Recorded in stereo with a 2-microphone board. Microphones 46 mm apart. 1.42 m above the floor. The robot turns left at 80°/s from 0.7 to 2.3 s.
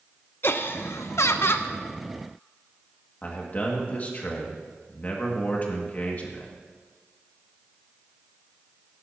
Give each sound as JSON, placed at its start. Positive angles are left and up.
{"t": 0.4, "sound": "laughter", "azimuth_deg": 125, "distance_m": 0.9}
{"t": 3.2, "sound": "a man speaking", "side_deg": 35, "distance_m": 2.0}